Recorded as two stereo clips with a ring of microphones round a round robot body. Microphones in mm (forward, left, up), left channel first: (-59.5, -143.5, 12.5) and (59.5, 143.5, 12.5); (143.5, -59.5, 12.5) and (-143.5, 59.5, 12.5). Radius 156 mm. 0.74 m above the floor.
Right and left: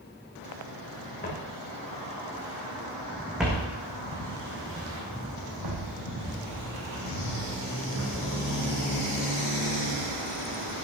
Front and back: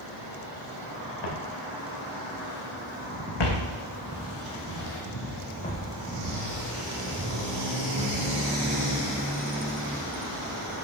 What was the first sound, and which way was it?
Footsteps, 45° right.